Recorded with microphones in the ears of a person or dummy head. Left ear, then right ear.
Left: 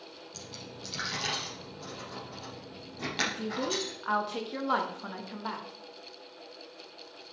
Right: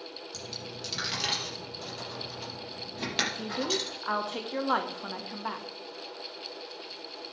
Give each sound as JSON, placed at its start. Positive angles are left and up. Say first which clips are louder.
{"t": 0.3, "sound": "a dropped coin", "louder": "right 4 dB", "side_deg": -25, "distance_m": 4.5}
{"t": 3.3, "sound": "a woman speaking", "louder": "right 2 dB", "side_deg": -10, "distance_m": 1.4}